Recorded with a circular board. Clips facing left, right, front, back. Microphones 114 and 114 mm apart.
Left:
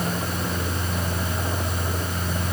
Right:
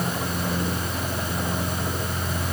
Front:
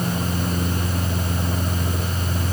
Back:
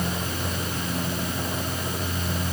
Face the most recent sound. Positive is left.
No sound to turn to.